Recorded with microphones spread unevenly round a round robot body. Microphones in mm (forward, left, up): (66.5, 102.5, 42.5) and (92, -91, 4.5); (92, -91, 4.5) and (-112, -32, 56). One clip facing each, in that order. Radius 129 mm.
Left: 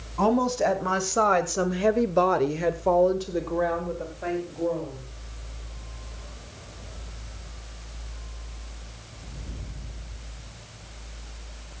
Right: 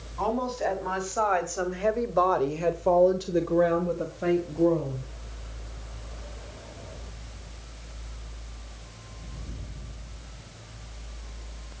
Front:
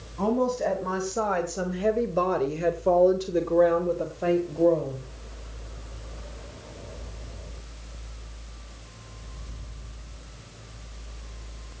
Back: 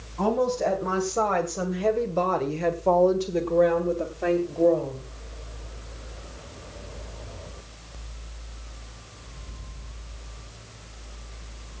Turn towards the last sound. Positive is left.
turn(degrees=-90)